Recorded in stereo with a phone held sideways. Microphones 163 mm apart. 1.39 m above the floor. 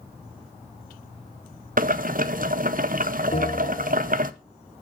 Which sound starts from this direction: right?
Boiling, at 1.8 s.